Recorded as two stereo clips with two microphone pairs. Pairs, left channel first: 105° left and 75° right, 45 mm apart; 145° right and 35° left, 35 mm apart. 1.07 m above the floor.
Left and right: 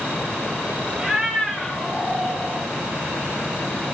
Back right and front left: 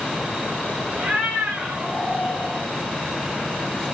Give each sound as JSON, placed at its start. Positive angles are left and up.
{"t": 1.0, "sound": "a cat meowing", "azimuth_deg": 0, "distance_m": 0.7}